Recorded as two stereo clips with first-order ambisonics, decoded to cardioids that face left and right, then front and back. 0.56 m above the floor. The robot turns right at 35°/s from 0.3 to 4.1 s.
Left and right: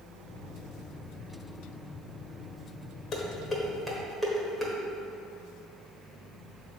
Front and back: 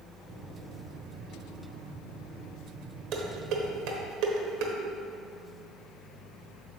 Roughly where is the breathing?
No breathing in this recording.